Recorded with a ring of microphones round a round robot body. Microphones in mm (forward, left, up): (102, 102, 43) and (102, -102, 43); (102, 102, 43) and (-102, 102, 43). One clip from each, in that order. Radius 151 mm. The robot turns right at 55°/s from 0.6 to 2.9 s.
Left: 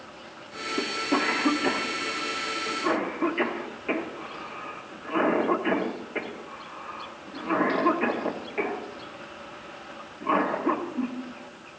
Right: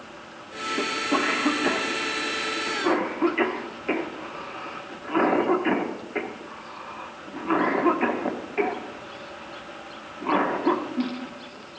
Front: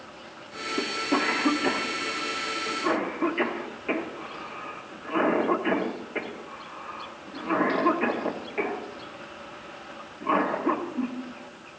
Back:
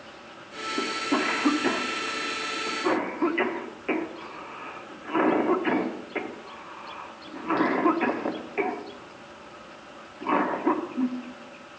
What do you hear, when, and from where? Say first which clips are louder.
0.8 s a cough: right 1 dB, even; 85° left, 1.3 m; by 11.1 s 155° right, 1.3 m